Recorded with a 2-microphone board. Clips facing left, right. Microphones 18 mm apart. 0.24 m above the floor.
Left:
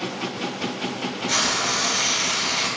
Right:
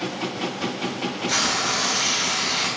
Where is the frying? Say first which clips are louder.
Left 1 dB; 5° left (ahead or behind), 0.8 m.